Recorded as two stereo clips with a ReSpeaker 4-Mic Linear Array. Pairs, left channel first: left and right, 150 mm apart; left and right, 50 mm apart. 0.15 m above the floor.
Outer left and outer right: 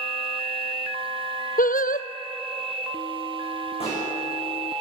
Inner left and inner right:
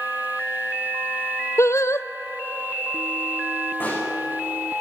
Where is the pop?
40° left (ahead or behind), 10 m.